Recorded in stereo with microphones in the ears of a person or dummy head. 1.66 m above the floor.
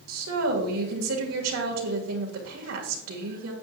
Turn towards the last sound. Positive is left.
turn(degrees=-80)